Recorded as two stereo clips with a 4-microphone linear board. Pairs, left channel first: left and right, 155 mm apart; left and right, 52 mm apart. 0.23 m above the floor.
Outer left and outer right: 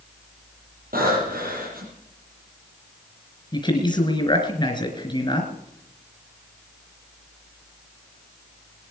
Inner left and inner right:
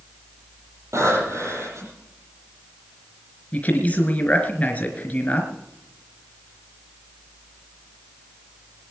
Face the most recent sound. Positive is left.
turn(degrees=30)  # may be behind; listen again after turning